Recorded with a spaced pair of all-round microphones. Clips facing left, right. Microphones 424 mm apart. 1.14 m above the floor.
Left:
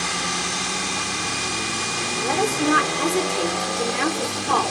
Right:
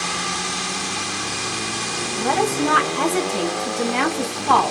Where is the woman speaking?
80° right, 1.1 m.